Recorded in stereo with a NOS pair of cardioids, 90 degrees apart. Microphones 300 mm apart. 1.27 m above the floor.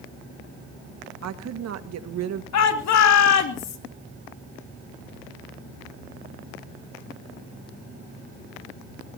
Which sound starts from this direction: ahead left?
A shout, at 2.5 s.